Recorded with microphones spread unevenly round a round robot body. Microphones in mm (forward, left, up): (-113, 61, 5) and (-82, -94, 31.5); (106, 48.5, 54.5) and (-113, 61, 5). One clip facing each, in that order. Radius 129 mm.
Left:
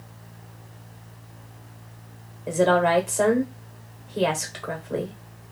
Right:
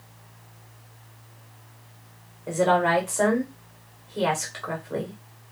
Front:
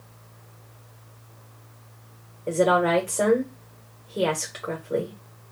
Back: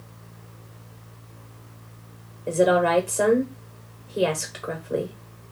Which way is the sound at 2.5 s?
130° left.